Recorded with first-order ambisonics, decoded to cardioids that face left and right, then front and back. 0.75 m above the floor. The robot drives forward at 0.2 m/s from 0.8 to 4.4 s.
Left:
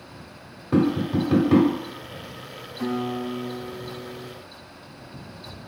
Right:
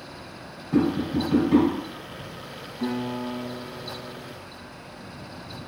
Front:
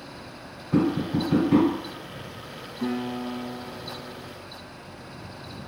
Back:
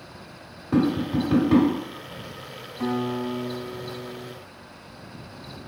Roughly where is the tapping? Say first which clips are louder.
Left 1 dB, back 1 dB; behind left.